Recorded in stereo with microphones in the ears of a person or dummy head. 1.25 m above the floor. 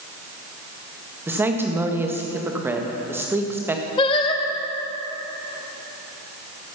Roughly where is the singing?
Left.